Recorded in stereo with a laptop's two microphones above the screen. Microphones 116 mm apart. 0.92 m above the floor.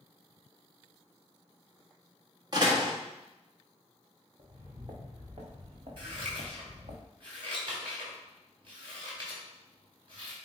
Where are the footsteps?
45° right (ahead or behind), 3 m; by 7.0 s 75° right (ahead or behind), 3.5 m.